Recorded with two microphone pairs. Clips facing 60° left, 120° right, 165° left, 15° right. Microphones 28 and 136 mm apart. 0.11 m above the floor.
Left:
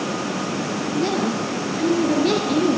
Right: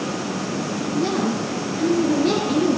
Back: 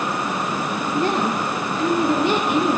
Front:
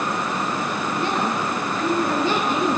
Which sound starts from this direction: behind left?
A woman speaking, at 0.9 s.